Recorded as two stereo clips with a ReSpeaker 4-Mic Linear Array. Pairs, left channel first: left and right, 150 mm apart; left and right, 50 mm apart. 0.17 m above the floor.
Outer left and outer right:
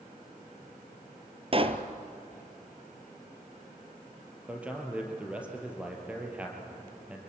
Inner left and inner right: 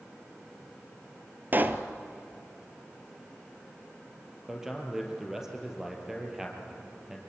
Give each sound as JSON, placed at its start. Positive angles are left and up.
{"t": 1.5, "sound": "a pop", "side_deg": -40, "distance_m": 1.2}
{"t": 4.5, "sound": "a man speaking", "side_deg": -10, "distance_m": 4.0}